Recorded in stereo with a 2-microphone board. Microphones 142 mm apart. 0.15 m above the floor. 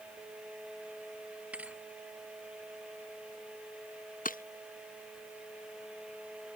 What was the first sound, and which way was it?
A thud, 10° right (ahead or behind).